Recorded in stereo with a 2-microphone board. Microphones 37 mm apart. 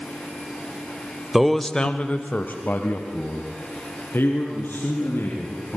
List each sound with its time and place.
1.3 s a man speaking: 10° right (ahead or behind), 1.1 m; by 5.8 s 80° left, 5.5 m